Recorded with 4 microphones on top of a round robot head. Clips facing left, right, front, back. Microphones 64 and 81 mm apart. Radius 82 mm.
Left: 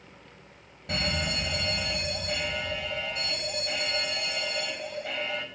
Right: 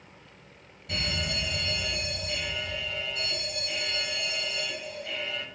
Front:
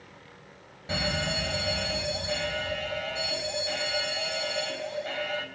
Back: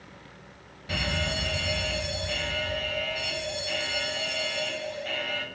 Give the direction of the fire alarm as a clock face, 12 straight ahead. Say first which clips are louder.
Left 2 dB, front 1 dB; 10 o'clock.